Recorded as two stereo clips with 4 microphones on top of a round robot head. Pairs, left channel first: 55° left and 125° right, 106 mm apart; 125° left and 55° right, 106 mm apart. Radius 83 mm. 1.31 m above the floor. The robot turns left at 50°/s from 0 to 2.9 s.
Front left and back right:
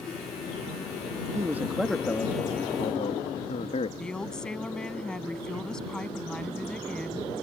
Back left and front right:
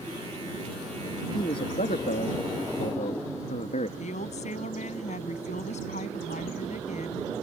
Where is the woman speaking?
140° left.